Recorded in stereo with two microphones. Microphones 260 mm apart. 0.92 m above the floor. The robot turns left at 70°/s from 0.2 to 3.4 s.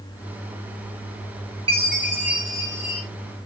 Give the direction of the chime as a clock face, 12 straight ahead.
1 o'clock.